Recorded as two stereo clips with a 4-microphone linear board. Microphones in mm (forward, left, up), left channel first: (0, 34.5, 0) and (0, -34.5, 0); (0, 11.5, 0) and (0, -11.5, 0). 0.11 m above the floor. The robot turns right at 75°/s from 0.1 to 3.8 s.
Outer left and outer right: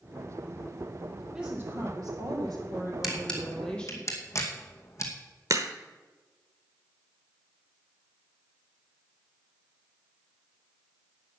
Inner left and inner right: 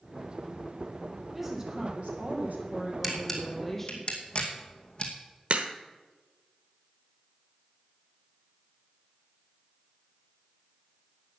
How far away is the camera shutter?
About 2 m.